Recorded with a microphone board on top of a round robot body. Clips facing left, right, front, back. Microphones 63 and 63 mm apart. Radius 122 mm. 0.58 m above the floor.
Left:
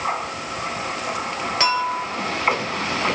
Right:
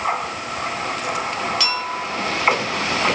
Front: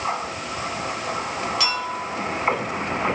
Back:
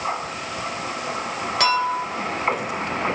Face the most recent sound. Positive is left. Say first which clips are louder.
# left 3 dB, back 6 dB
turn(degrees=145)